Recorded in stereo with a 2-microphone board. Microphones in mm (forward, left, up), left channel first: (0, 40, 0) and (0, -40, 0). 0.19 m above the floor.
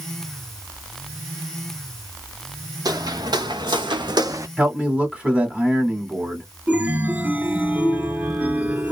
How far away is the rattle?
I don't hear a rattle.